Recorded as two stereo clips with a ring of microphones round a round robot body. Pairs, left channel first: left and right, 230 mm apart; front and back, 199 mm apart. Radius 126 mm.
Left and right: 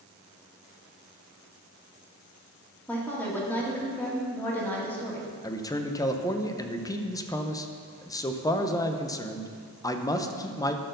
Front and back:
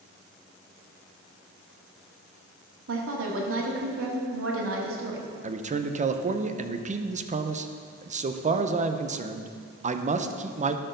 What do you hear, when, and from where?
2.9 s a woman speaking: 175° left, 2 m
5.4 s a man speaking: 155° left, 0.7 m